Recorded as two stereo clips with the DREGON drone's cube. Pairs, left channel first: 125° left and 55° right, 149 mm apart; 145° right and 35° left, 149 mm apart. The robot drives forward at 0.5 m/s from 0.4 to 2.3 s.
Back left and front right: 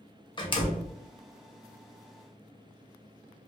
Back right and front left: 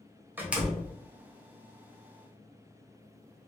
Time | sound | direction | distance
0.4 | a door slam | 100° left | 0.7 m